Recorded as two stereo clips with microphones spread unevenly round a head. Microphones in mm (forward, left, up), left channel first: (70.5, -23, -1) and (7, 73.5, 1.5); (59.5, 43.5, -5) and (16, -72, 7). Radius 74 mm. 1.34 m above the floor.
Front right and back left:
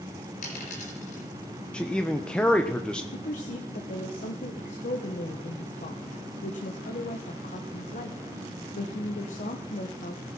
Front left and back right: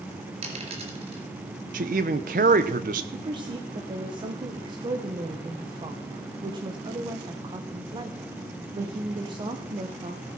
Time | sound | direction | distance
0.4 | a dropped coin | 85° right | 3.5 m
1.7 | a man speaking | 140° right | 0.8 m
3.1 | a woman speaking | 60° right | 1.1 m